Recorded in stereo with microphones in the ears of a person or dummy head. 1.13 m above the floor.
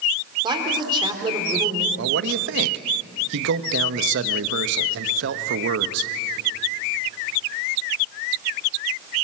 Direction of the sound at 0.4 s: 25° right (ahead or behind).